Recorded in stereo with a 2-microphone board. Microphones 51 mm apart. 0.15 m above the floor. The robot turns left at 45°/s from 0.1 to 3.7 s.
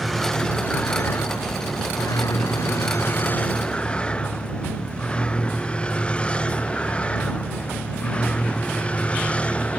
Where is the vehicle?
Centre (ahead or behind); by 9.8 s 25° left (ahead or behind).